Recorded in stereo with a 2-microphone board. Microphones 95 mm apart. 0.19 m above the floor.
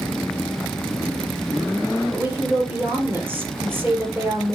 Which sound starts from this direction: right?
A woman speaking, at 2.1 s.